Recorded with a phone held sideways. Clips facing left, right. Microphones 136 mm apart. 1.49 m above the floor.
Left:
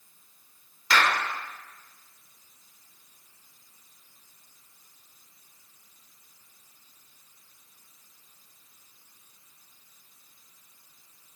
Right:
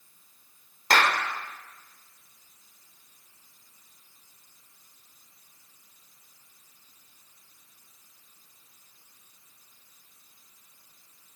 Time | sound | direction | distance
0.9 | a clap | 45° right (ahead or behind) | 4.5 m